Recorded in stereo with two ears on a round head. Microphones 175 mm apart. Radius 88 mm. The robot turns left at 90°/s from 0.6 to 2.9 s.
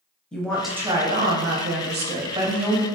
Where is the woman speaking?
5° left, 0.6 m; by 2.9 s 160° left, 0.6 m.